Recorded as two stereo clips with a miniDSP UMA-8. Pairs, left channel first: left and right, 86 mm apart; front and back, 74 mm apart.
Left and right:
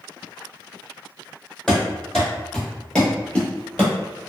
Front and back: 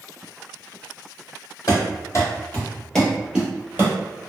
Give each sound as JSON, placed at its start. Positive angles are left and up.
{"t": 1.7, "sound": "running footsteps", "azimuth_deg": 5, "distance_m": 1.5}